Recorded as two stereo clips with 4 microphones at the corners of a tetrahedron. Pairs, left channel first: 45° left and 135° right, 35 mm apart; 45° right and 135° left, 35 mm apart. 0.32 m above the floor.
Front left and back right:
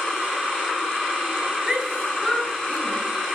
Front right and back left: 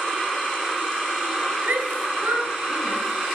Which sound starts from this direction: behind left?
A shout, at 1.6 s.